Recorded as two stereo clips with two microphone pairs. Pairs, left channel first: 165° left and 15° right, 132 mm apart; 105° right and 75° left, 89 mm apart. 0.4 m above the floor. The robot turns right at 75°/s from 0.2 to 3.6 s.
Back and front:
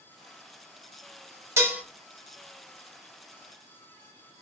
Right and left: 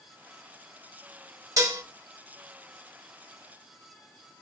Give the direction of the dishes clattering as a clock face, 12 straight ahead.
10 o'clock.